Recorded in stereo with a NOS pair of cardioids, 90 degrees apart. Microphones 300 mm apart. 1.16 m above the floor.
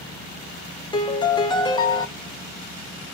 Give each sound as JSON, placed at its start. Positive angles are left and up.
{"t": 0.9, "sound": "a piano", "azimuth_deg": 15, "distance_m": 0.6}